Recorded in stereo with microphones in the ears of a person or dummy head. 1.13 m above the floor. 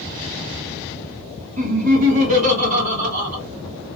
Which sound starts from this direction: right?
Laughter, at 1.6 s.